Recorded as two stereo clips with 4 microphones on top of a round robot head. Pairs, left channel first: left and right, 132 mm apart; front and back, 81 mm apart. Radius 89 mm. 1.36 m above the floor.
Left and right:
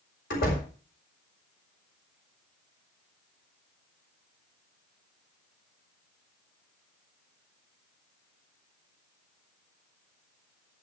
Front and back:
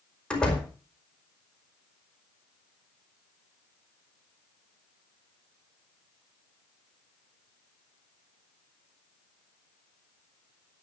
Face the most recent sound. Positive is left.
turn(degrees=75)